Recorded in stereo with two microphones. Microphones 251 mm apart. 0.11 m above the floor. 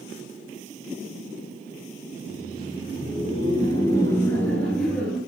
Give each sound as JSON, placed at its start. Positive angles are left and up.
{"t": 2.1, "sound": "laughter", "side_deg": 35, "distance_m": 1.5}